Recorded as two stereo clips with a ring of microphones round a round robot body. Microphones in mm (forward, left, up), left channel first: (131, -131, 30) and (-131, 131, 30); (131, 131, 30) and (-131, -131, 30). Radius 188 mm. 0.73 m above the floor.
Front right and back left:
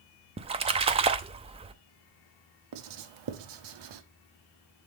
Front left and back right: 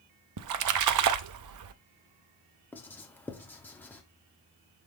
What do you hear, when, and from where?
0.4 s a splash: 155° right, 0.6 m
2.7 s writing: 130° left, 1.0 m